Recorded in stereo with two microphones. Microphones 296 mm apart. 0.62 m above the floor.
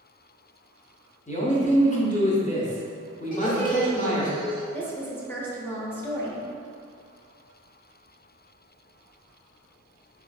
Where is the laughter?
25° left (ahead or behind), 1.0 m.